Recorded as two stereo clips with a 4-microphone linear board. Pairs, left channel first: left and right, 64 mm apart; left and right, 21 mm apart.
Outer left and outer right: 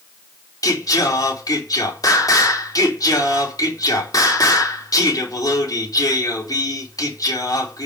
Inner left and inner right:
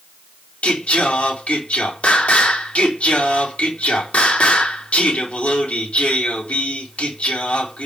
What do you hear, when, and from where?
0.6 s singing: 70° left (ahead or behind), 3.5 m